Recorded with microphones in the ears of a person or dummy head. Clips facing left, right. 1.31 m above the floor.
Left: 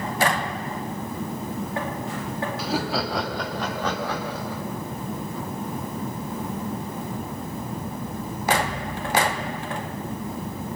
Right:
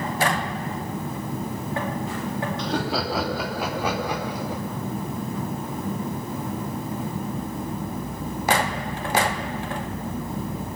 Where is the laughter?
5° left (ahead or behind), 2.5 m; by 4.6 s 15° right (ahead or behind), 5 m.